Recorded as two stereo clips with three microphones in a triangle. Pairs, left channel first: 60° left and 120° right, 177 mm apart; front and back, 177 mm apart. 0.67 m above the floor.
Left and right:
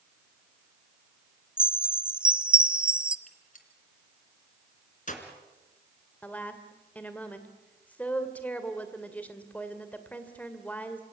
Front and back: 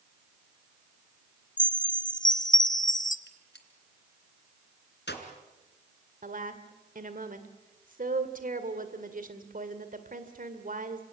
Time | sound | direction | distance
1.6 | a chime | 35° right | 0.8 m
3.3 | a gunshot | 15° left | 2.5 m
6.2 | a woman speaking | 140° left | 2 m